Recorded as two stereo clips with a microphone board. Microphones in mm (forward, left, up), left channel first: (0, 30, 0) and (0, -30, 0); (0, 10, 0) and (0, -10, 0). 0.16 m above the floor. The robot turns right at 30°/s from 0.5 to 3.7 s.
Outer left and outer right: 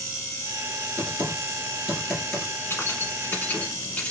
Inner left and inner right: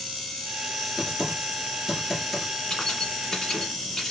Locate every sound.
1.0 s typing on a keyboard: 35° right (ahead or behind), 1.8 m; by 2.5 s 5° left (ahead or behind), 1.8 m
2.7 s keys jangling: 40° left (ahead or behind), 1.1 m; by 4.1 s 25° left (ahead or behind), 1.1 m